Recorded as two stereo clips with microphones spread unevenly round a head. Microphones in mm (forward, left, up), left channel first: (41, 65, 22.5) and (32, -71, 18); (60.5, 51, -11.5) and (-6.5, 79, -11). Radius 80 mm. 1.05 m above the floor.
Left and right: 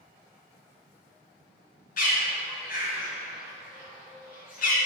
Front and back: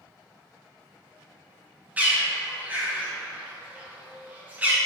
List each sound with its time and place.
2.0 s a bird: 90° left, 1.7 m